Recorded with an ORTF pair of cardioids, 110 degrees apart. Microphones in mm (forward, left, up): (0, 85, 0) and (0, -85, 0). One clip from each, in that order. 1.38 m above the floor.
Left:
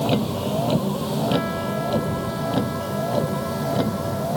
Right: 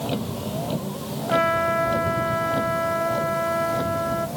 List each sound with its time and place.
0.0 s a vehicle: 35° left; by 4.4 s 45° left
1.3 s a trumpet: 55° right